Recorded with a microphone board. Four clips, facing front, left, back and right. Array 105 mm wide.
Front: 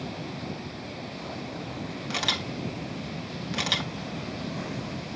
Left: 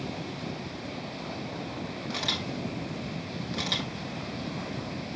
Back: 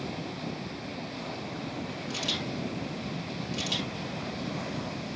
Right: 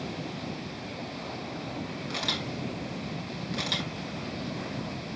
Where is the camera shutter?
Straight ahead, 2 m.